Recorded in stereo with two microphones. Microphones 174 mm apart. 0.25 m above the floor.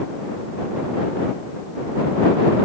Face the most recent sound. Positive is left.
No sound to turn to.